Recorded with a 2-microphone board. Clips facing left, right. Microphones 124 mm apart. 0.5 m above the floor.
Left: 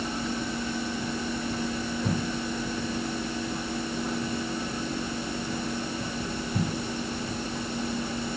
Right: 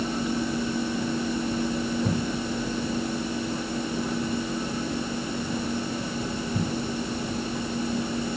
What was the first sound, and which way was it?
Only background noise.